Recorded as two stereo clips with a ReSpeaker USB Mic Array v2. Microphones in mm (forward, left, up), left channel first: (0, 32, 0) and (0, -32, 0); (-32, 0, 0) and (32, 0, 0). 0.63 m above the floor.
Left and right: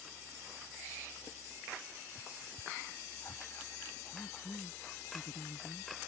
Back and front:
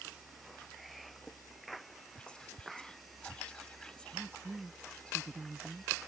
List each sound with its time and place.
2.2 s whispering: 105° left
4.1 s a woman speaking: 55° left